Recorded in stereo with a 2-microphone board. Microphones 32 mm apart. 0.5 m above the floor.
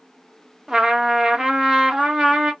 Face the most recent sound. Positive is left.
turn(degrees=-15)  # may be behind; listen again after turning